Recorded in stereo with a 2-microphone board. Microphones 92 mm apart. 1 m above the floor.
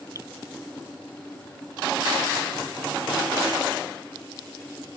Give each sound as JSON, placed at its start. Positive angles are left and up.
{"t": 0.1, "sound": "dripping", "side_deg": -35}